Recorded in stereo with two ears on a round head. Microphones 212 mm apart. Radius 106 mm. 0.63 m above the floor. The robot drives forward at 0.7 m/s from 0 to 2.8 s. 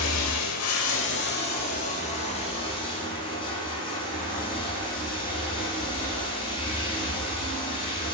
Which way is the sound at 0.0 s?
70° left (ahead or behind).